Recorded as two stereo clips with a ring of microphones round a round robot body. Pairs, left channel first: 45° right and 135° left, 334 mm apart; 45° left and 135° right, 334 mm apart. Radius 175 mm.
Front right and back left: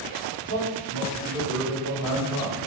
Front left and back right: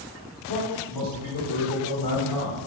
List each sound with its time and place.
0.5 s a man speaking: 85° left, 1.8 m; by 2.6 s 45° left, 2 m